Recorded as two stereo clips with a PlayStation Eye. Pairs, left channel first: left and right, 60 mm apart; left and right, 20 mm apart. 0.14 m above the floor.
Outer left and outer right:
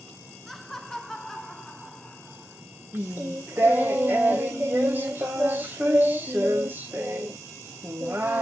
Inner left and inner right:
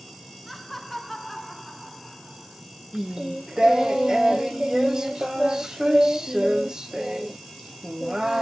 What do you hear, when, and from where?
0.5 s laughter: 5° left (ahead or behind), 1.5 m; by 2.6 s 15° left (ahead or behind), 1.3 m
2.9 s singing: 35° right (ahead or behind), 1.4 m